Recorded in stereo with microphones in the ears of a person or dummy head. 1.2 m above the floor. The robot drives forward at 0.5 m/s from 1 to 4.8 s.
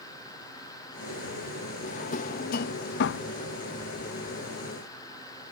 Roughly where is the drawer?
Left.